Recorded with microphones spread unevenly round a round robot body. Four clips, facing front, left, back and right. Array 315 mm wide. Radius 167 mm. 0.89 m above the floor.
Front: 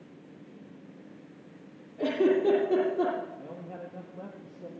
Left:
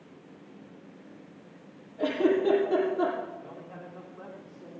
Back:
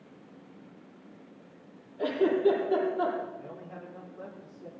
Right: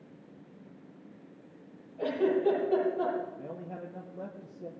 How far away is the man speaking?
About 1.7 m.